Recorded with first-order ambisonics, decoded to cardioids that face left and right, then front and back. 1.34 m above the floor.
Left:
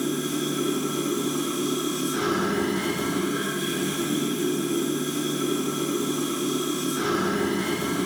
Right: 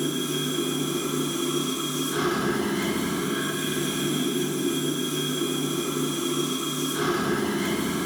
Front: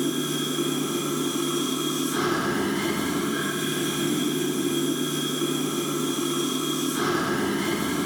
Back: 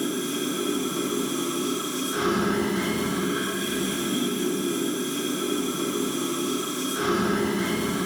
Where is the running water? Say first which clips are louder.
Even, front 1 dB; 70° right, 1.9 m.